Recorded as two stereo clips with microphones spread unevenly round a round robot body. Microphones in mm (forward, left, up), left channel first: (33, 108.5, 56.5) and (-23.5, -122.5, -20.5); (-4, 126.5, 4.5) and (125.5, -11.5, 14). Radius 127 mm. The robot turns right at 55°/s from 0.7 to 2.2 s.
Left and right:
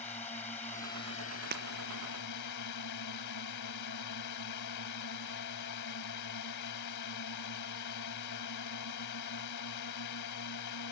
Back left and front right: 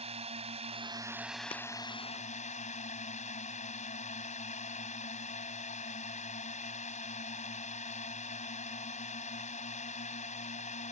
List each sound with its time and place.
0.0 s a drone: 5° left; by 10.9 s 90° left
1.5 s breaking glass: 155° right; by 1.6 s 150° right